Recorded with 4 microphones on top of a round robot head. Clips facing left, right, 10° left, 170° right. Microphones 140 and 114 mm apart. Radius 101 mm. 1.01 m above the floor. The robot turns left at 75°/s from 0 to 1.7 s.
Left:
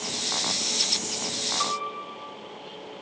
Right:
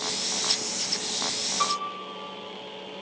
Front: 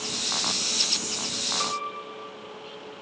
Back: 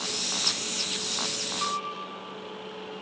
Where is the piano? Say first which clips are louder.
Right 3 dB, even; straight ahead, 3 m; by 2.4 s 10° right, 3 m.